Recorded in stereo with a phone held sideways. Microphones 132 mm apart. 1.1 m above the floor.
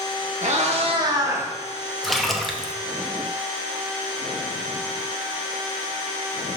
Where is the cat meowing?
65° right (ahead or behind), 1.1 m; by 1.5 s 15° right (ahead or behind), 1.2 m.